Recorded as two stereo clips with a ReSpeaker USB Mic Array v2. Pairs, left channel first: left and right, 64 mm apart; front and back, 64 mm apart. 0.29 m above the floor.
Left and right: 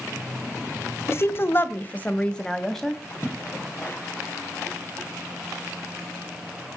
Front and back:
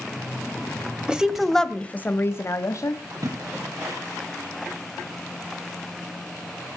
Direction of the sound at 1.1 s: 110° left.